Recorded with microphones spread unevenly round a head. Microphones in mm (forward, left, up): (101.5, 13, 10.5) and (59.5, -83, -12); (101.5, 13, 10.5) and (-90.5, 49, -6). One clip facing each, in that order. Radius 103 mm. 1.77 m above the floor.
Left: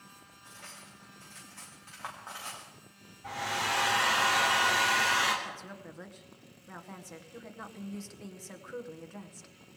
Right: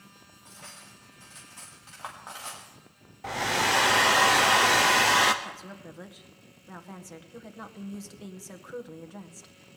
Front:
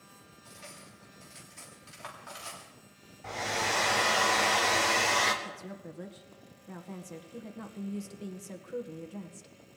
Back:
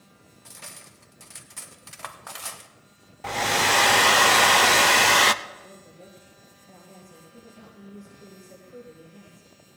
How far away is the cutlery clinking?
About 1.7 m.